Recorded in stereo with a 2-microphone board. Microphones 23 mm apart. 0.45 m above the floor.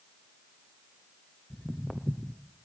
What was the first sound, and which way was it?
Footsteps, 20° left (ahead or behind).